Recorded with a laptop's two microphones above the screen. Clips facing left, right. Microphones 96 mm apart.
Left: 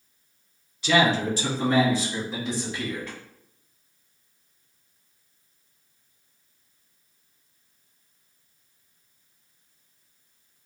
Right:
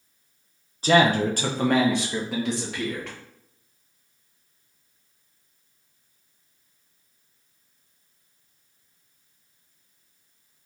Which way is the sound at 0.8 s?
35° right (ahead or behind).